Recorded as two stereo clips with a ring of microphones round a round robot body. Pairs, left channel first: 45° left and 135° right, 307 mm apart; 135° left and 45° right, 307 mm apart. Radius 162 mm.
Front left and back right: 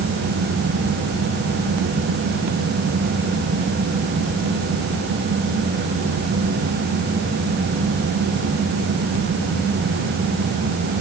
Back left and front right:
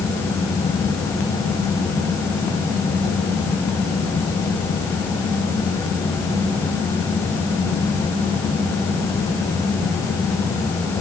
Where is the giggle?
I don't hear a giggle.